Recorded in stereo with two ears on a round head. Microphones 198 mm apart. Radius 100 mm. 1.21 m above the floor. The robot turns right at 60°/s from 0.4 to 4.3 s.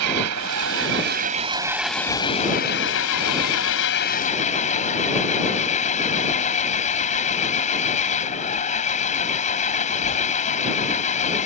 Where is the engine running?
90° right; by 11.5 s 145° left.